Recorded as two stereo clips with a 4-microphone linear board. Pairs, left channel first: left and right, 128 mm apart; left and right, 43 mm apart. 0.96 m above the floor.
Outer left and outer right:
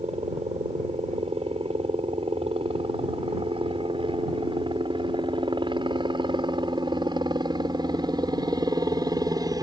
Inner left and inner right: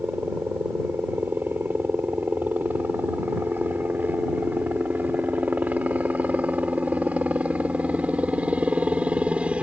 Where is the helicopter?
50° right (ahead or behind); by 9.6 s 30° right (ahead or behind).